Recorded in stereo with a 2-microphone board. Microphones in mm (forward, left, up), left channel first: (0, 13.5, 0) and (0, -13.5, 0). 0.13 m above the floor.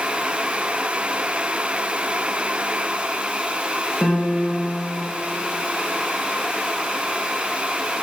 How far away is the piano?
About 6.5 m.